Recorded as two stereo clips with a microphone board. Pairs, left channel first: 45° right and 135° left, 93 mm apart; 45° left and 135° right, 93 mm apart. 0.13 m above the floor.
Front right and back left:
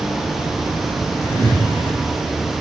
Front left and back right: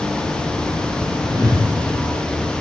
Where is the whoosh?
115° right, 1.7 m.